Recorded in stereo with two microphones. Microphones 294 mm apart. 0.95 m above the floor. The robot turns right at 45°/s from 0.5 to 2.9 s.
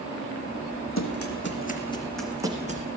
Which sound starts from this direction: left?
Running footsteps, at 1.0 s.